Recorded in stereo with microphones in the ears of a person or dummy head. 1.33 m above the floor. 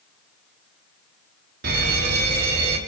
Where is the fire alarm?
55° right (ahead or behind), 5.5 m.